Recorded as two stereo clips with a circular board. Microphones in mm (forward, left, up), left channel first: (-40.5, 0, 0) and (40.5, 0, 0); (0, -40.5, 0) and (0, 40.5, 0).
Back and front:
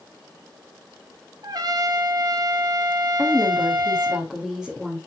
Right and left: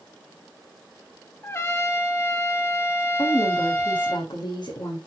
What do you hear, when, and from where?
1.4 s a trumpet: 35° right, 1.0 m
3.2 s a woman speaking: 85° right, 2 m